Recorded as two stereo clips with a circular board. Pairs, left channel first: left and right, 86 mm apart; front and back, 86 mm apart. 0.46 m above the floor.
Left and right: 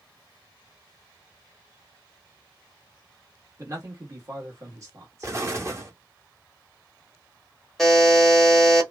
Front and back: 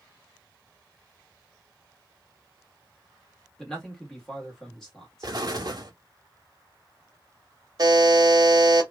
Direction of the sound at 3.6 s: 80° right.